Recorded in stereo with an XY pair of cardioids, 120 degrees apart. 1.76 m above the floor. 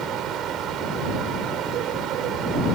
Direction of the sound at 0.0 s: 65° right.